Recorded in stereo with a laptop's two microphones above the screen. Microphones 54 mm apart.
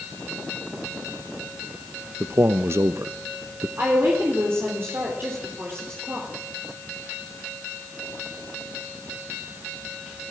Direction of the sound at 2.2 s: 50° right (ahead or behind).